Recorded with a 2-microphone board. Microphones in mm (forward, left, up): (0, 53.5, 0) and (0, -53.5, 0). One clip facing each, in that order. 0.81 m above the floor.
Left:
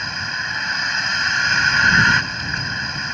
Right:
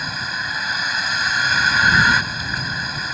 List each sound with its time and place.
0.0 s a vehicle: 5° right (ahead or behind)